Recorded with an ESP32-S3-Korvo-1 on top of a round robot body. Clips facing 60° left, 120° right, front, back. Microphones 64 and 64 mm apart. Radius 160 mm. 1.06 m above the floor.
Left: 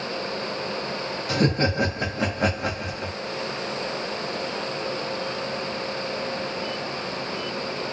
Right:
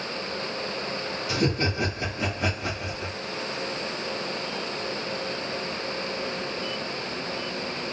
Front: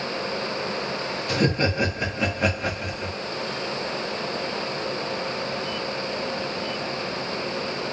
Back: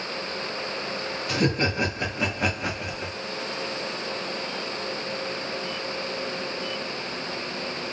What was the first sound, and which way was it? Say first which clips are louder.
Laughter: left 4 dB, front 1 dB; 90° left.